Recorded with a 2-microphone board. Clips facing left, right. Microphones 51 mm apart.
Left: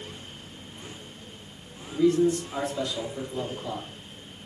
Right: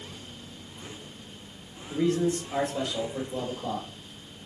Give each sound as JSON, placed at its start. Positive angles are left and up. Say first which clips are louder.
{"t": 1.9, "sound": "a man speaking", "louder": "left 4 dB", "side_deg": -55, "distance_m": 2.5}